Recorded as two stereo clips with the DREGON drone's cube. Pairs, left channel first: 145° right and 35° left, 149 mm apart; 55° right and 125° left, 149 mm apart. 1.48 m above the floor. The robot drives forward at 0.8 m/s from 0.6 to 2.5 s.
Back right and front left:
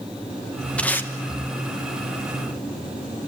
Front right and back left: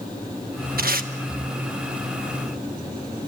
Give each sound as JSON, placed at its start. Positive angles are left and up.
{"t": 0.8, "sound": "tape being pulled", "azimuth_deg": 130, "distance_m": 1.3}